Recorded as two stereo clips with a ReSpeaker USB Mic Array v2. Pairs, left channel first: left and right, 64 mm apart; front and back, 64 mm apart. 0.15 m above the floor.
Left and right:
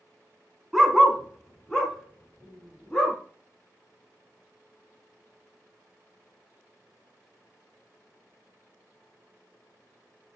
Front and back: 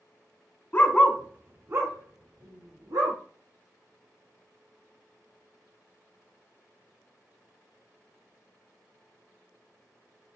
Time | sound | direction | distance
0.7 | a dog barking | 10° right | 0.7 m